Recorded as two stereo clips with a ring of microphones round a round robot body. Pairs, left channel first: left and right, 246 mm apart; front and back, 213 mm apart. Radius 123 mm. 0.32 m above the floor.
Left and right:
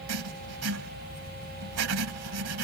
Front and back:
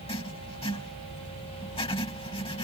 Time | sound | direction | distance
0.1 | writing | 70° right | ?